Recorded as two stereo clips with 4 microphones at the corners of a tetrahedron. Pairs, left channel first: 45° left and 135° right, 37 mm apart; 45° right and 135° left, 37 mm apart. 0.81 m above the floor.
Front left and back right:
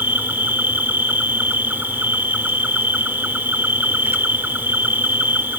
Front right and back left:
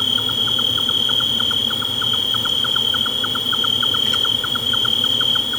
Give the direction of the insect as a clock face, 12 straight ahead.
4 o'clock.